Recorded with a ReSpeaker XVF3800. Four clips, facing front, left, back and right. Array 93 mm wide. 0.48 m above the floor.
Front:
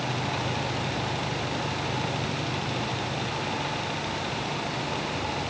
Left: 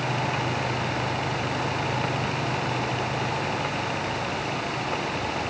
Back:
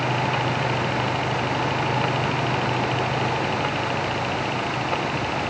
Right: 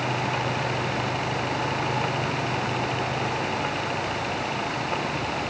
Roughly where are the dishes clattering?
No dishes clattering in this recording.